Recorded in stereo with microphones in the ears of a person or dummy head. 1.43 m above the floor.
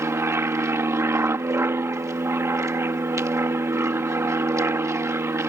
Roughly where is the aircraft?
Centre.